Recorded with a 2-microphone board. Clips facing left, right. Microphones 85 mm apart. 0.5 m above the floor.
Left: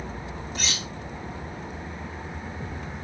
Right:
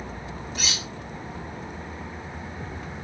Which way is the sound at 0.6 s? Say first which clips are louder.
Even; 5° right (ahead or behind).